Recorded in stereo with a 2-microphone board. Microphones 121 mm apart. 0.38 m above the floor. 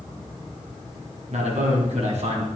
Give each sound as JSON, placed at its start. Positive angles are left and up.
{"t": 1.3, "sound": "a man speaking", "side_deg": -70, "distance_m": 3.0}